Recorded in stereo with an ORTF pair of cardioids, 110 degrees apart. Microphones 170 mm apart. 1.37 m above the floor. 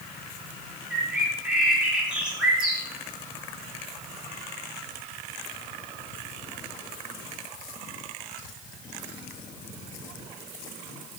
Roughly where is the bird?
Ahead.